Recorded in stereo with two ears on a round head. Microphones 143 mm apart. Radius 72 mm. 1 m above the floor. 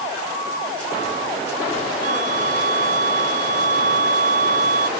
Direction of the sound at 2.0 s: 55° right (ahead or behind).